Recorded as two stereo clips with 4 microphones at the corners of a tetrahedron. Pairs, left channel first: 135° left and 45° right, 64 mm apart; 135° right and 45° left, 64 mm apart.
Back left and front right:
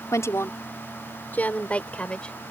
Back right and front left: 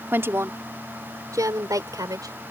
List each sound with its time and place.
0.1 s a woman speaking: 100° left; by 2.4 s 60° left